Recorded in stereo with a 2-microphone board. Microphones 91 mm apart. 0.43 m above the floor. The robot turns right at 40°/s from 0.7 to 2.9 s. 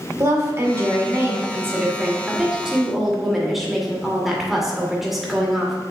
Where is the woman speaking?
95° right, 1.5 m; by 5.8 s 5° right, 1.5 m.